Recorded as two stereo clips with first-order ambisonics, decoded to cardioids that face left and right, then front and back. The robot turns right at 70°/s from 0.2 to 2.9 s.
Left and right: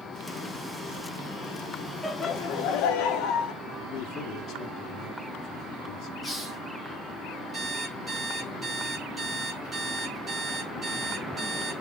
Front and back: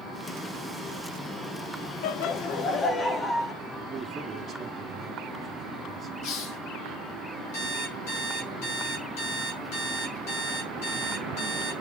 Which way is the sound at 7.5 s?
5° right.